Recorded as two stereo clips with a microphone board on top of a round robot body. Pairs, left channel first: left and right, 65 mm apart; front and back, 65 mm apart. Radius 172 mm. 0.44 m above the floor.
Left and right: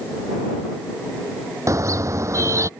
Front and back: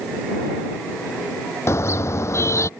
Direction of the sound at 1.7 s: 50° right.